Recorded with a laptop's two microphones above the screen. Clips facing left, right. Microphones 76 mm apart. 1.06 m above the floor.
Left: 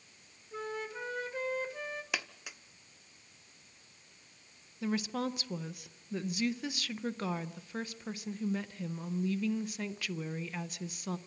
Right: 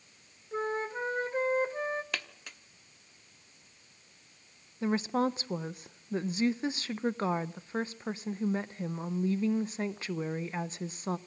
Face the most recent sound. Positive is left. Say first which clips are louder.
# right 5 dB
turn(degrees=-30)  # may be behind; listen again after turning